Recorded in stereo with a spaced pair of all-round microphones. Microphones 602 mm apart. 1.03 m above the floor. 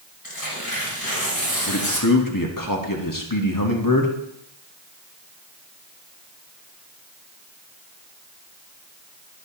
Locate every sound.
0.2 s tearing paper: 35° left (ahead or behind), 3.5 m
1.7 s a man speaking: 35° left (ahead or behind), 1.4 m